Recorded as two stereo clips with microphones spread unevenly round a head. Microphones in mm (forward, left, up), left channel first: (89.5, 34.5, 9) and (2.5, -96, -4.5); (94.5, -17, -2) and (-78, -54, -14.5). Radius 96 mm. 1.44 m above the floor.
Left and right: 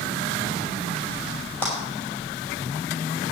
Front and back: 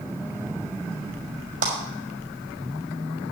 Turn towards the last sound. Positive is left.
turn(degrees=135)